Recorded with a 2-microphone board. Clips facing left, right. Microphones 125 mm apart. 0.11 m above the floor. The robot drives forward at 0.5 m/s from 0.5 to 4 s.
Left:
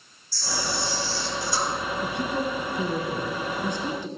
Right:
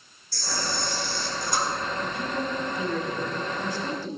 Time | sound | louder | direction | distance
0.3 | a camera shutter | left 1 dB | 60° right (ahead or behind) | 1.6 m
2.0 | a woman speaking | left 2 dB | 25° left (ahead or behind) | 1.2 m